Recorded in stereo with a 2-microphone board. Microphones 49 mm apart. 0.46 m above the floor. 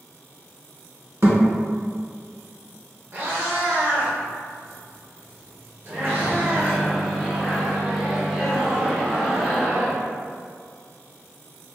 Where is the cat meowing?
45° right (ahead or behind), 0.8 m.